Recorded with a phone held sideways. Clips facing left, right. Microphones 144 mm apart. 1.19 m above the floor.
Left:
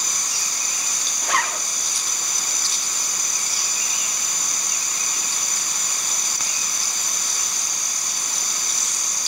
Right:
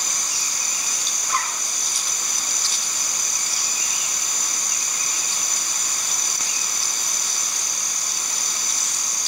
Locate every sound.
1.2 s a zipper: 80° left, 0.9 m